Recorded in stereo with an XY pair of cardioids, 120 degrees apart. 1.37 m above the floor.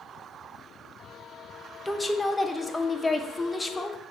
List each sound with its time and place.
1.9 s a woman speaking: 15° left, 0.5 m